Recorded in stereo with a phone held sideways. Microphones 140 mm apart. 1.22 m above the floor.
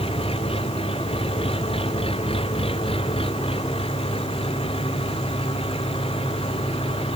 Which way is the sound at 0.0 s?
45° left (ahead or behind).